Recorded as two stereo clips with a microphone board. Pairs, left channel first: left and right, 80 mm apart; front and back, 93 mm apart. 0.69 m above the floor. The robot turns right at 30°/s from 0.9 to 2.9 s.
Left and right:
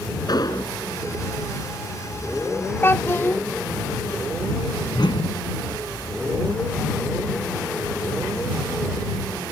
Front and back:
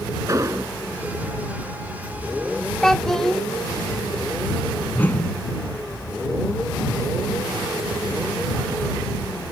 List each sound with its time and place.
0.3 s an explosion: 125° left
2.8 s a child speaking: 75° left; by 3.4 s 80° left
4.9 s a whoosh: 70° left